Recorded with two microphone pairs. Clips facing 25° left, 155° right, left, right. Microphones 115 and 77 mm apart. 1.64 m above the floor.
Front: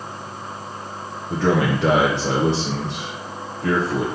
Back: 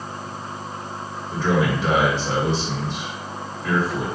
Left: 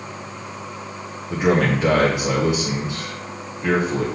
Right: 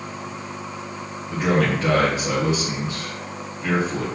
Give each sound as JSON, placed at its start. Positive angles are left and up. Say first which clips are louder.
{"t": 1.3, "sound": "a man speaking", "louder": "front 2 dB, left 2 dB", "azimuth_deg": 20, "distance_m": 1.1}